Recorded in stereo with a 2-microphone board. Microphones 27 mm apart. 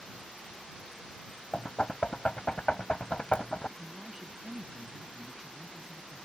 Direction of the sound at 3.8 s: 20° right (ahead or behind).